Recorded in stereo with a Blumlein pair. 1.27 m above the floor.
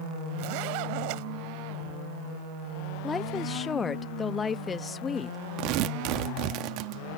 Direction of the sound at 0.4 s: 45° right.